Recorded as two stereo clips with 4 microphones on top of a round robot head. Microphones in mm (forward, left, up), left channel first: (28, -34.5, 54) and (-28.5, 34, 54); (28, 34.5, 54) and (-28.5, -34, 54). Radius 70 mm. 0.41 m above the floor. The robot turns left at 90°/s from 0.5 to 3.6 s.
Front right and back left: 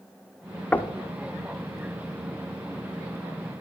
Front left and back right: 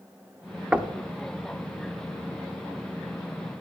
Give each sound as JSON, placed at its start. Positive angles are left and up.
{"t": 0.7, "sound": "knocking", "azimuth_deg": -75, "distance_m": 0.7}